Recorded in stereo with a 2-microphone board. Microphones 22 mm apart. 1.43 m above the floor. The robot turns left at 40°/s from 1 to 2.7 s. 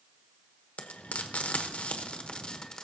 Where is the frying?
70° left (ahead or behind), 1.0 m; by 2.8 s 30° left (ahead or behind), 1.0 m.